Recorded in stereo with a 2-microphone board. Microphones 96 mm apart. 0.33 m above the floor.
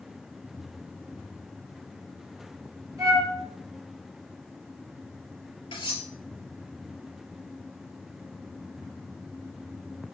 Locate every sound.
3.0 s a flute: 40° right (ahead or behind), 4 m
5.7 s cutlery clinking: 65° left (ahead or behind), 4.5 m